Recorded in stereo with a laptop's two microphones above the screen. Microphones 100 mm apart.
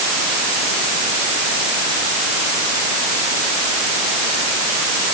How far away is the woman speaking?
I don't hear a woman speaking.